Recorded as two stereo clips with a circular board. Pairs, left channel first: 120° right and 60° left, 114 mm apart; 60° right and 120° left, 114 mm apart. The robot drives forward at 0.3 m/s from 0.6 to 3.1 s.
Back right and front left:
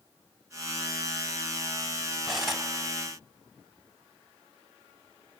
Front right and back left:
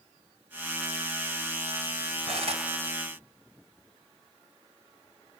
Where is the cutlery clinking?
150° left, 2 m.